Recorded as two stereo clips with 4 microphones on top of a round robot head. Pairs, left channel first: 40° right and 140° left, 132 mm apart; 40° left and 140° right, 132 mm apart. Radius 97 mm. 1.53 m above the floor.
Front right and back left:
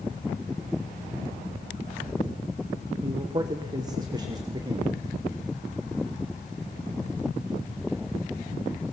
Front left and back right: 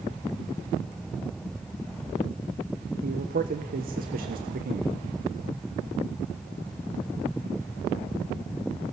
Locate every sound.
3.0 s a man speaking: 160° right, 1.2 m